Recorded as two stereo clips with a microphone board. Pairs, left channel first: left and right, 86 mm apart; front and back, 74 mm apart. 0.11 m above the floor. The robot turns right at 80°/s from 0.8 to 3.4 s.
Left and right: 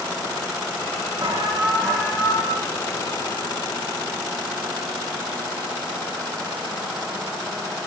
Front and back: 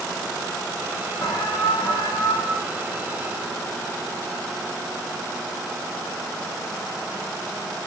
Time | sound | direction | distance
1.2 | an alarm | 50° right | 9.5 m